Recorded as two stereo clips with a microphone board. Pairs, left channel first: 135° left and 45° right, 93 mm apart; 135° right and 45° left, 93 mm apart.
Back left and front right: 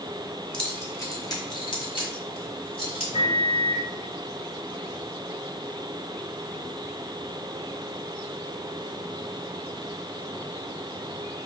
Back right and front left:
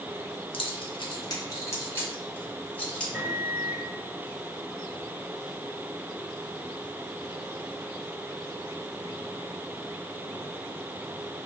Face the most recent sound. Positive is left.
turn(degrees=115)